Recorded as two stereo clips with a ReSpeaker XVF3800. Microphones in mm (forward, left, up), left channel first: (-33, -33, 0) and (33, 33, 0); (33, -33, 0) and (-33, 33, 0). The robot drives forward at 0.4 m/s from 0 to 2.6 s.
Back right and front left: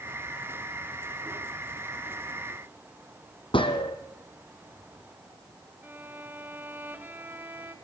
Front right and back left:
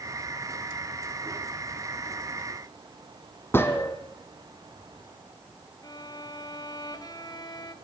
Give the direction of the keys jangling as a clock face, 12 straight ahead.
I don't hear keys jangling.